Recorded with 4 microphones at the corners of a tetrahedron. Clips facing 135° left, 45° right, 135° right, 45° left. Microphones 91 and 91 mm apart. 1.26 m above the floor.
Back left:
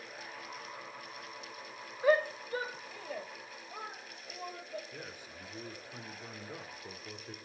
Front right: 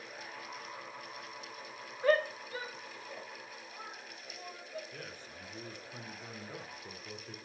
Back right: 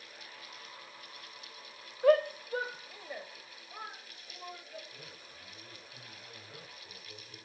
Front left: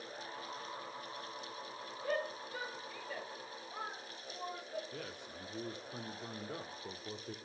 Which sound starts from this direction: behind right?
A shout, at 2.0 s.